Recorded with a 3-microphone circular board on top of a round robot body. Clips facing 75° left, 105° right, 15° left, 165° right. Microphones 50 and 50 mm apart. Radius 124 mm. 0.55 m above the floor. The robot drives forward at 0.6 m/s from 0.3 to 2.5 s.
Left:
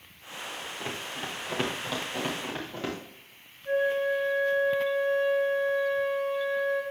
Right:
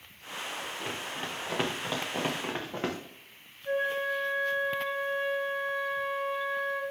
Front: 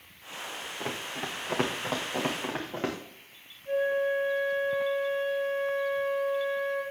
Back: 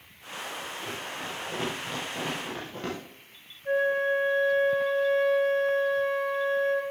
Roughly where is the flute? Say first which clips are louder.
Left 4 dB, back 2 dB; behind.